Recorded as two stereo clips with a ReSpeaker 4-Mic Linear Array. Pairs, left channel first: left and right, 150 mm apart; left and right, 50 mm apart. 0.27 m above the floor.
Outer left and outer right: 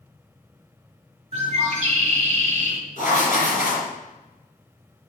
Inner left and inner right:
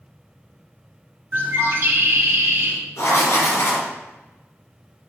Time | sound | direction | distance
1.3 | a bird | 50° right (ahead or behind) | 1.3 m
3.0 | writing | 60° left (ahead or behind) | 3 m